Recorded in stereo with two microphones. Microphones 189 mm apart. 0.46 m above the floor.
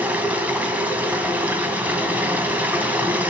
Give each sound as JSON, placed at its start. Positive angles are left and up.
{"t": 0.0, "sound": "running water", "side_deg": -10, "distance_m": 1.8}